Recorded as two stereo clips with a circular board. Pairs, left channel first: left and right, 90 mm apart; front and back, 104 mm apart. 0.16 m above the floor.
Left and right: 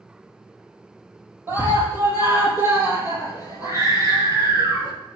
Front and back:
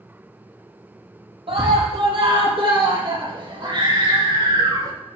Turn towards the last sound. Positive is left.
turn(degrees=-135)